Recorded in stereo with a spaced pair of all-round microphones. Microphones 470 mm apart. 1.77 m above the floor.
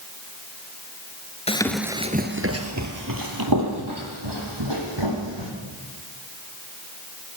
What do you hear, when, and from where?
1.5 s running footsteps: 15° left (ahead or behind), 1.8 m; by 5.5 s 65° right (ahead or behind), 6 m